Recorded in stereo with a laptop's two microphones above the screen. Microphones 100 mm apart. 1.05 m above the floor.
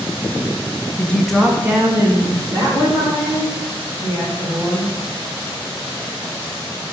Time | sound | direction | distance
1.0 | a woman speaking | 15° left (ahead or behind) | 0.8 m